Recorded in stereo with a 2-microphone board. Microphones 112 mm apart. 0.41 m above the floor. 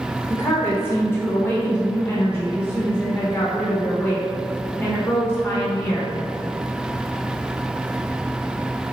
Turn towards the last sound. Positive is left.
turn(degrees=20)  # may be behind; listen again after turning